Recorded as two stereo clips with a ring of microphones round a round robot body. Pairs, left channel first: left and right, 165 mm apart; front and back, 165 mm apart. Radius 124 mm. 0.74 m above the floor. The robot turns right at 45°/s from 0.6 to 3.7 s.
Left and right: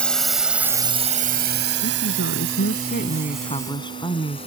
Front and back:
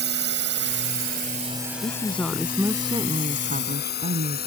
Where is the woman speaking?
65° left; by 4.5 s 150° left.